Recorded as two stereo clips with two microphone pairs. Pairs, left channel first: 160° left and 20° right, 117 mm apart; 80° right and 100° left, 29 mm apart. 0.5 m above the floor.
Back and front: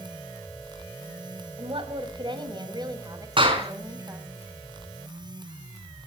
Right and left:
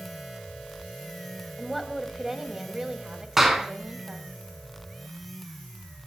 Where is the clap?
25° left, 5 m.